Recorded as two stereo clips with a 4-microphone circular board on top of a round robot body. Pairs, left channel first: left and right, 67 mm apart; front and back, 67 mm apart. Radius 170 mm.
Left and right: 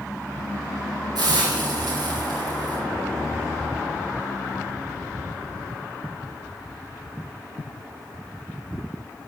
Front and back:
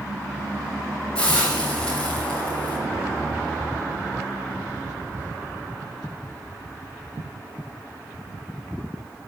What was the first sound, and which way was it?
A hiss, 75° right.